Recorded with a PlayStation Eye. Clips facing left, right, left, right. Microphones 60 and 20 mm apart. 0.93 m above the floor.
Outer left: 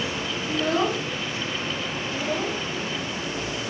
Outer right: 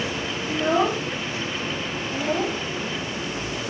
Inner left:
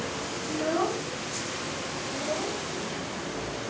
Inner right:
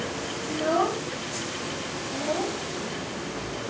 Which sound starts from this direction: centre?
A child speaking, at 0.5 s.